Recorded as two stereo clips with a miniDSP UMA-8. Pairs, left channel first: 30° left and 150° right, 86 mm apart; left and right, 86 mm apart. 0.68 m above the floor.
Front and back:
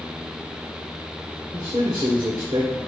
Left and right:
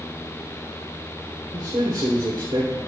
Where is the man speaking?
120° right, 2 m.